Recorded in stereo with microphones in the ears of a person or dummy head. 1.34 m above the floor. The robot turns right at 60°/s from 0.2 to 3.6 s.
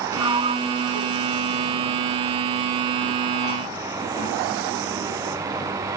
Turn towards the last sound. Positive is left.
turn(degrees=40)  # may be behind; listen again after turning